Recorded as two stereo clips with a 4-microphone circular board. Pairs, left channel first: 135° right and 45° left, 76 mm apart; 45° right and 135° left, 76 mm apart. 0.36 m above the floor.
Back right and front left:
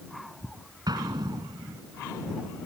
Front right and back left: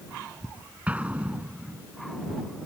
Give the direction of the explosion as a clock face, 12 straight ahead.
10 o'clock.